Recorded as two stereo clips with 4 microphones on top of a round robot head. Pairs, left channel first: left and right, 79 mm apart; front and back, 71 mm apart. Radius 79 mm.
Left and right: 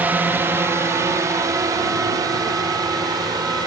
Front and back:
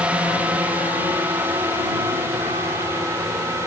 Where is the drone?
130° right; by 3.7 s 125° right.